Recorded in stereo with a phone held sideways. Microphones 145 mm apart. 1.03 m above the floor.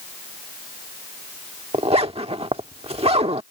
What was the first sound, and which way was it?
A zipper, 45° right (ahead or behind).